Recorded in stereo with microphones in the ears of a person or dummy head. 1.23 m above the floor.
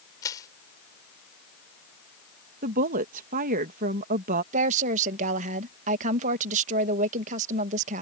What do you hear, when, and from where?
0.2 s crushing: 15° left (ahead or behind)
2.6 s a woman speaking: 45° right (ahead or behind)
4.5 s a woman speaking: 45° right (ahead or behind)